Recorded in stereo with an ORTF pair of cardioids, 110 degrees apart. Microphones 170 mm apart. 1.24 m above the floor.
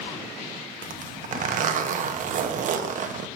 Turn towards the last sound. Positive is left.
turn(degrees=-50)